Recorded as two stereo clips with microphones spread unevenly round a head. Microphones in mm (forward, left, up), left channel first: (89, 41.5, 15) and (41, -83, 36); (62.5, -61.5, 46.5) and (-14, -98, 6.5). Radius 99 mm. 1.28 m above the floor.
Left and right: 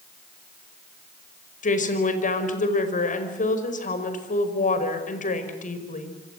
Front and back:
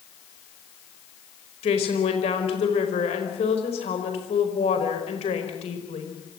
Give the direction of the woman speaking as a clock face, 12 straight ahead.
10 o'clock.